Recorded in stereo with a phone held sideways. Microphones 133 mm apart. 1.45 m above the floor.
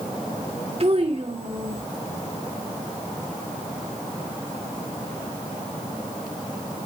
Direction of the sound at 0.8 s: 50° right (ahead or behind).